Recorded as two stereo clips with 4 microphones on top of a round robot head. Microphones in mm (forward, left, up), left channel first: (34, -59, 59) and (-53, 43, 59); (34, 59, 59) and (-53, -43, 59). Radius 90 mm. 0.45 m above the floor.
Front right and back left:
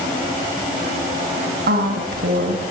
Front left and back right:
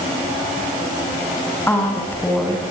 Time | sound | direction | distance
1.7 | a woman speaking | 125° left | 5.5 m